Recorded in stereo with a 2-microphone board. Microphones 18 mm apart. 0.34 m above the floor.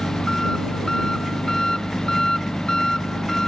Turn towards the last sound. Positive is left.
turn(degrees=45)  # may be behind; listen again after turning